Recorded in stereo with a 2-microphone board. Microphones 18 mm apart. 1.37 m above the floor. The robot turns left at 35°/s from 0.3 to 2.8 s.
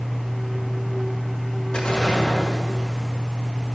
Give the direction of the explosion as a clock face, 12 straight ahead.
9 o'clock.